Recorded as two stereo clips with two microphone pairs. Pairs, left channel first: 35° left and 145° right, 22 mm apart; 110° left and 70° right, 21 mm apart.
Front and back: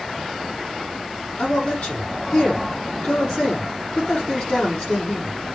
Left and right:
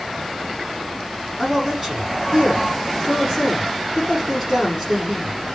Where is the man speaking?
15° left, 7 m.